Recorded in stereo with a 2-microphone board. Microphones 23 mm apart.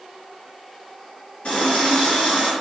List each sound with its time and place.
1.4 s a running tap: 60° left (ahead or behind), 1.5 m